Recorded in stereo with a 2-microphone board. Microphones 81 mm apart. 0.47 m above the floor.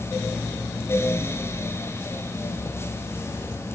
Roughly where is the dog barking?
No dog barking in this recording.